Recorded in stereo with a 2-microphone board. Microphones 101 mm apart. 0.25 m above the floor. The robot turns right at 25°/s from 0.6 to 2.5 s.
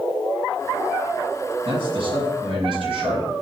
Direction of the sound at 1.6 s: 55° right (ahead or behind).